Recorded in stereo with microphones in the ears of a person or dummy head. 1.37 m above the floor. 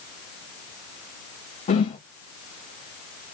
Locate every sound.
1.7 s a whoosh: 35° left (ahead or behind), 1.0 m